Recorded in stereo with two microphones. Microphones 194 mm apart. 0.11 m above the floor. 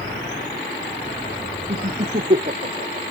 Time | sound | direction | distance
1.7 | laughter | 50° right (ahead or behind) | ?